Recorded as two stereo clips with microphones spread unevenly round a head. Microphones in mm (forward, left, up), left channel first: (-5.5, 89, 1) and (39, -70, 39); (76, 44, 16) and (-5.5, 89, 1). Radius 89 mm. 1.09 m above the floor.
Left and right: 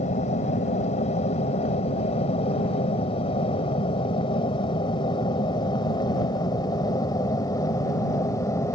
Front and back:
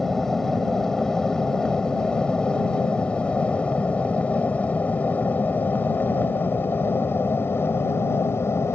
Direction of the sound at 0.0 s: 55° left.